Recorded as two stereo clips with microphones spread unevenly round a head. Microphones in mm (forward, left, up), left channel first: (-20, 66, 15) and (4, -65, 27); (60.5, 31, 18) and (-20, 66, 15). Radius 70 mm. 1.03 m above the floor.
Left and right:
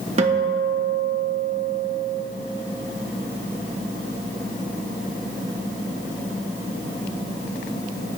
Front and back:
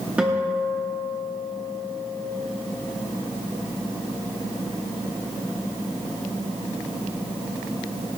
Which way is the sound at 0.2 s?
120° right.